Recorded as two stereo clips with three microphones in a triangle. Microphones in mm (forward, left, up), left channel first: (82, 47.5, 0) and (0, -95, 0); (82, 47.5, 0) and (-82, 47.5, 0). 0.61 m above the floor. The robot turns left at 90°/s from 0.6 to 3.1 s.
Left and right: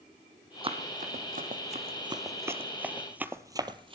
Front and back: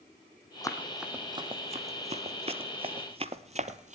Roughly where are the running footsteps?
Ahead right.